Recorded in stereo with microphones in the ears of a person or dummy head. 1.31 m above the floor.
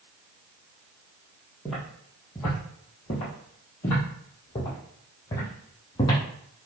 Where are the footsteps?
Centre (ahead or behind), 1.5 m; by 6.2 s 25° left (ahead or behind), 2.5 m.